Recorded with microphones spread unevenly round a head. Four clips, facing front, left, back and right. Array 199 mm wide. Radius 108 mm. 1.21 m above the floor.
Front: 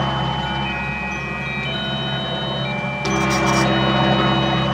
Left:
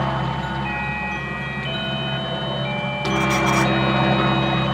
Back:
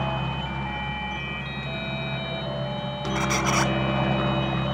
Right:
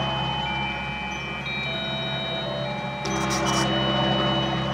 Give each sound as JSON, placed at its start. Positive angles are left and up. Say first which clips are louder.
{"t": 0.0, "sound": "a helicopter", "louder": "left 3 dB, front 7 dB", "azimuth_deg": 20}
{"t": 3.1, "sound": "a squeak", "louder": "left 5 dB, front 6 dB", "azimuth_deg": 165}